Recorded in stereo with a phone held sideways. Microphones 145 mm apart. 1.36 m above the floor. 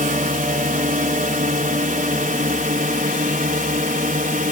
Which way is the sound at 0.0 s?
70° right (ahead or behind).